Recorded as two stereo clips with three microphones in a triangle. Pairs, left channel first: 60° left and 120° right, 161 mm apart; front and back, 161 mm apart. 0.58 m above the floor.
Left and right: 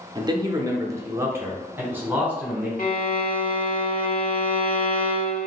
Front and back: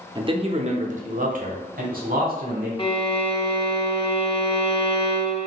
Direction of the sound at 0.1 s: 155° right.